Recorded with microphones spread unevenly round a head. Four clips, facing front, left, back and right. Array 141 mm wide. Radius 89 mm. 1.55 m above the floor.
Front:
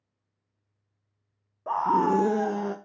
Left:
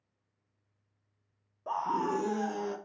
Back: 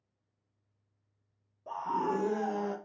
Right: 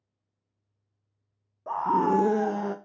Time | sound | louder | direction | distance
1.7 | a scream | right 7 dB, front 9 dB | 20° left | 0.6 m